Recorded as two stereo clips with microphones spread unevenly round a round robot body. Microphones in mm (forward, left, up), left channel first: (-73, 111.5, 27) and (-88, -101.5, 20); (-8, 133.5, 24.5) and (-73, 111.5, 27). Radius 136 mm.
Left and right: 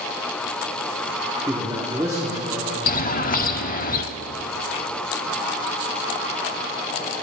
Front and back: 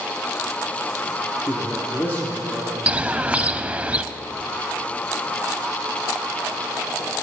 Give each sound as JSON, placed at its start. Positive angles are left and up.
{"t": 1.5, "sound": "a man speaking", "azimuth_deg": -25, "distance_m": 1.0}
{"t": 2.9, "sound": "a bird", "azimuth_deg": 130, "distance_m": 0.6}